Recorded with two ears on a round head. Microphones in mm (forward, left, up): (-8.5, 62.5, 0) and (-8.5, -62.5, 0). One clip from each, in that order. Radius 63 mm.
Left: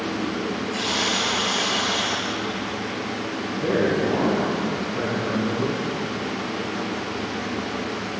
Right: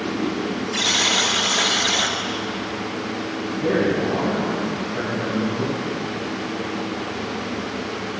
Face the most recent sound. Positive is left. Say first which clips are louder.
# right 1 dB
turn(degrees=-15)  # may be behind; listen again after turning